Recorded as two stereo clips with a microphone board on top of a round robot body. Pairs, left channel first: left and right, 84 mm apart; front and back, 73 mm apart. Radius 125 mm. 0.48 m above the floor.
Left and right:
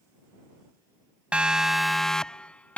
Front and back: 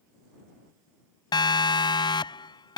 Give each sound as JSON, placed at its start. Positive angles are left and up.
{"t": 1.3, "sound": "a siren", "azimuth_deg": -15}